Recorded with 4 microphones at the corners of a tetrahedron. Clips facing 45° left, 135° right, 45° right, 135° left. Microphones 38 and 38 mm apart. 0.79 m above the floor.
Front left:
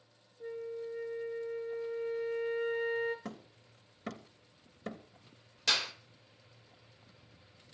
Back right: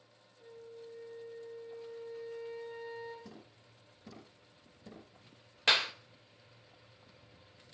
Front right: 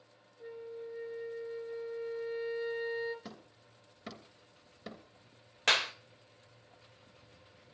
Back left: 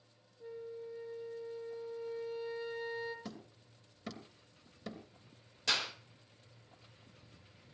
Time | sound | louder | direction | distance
0.4 | a flute | front left 10 dB, front right 1 dB | 15° left | 3 m
3.2 | hammering | front left 7 dB, back left 1 dB | 35° left | 3 m
5.7 | a clap | back right 3 dB, front right 6 dB | 75° right | 1.9 m